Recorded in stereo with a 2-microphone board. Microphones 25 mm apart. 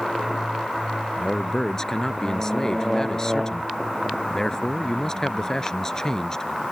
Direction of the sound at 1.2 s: 25° left (ahead or behind).